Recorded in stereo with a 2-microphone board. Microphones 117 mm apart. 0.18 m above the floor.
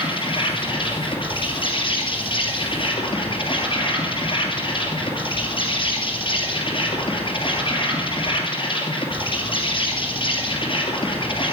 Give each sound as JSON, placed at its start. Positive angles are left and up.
{"t": 0.0, "sound": "an insect", "side_deg": 50, "distance_m": 3.0}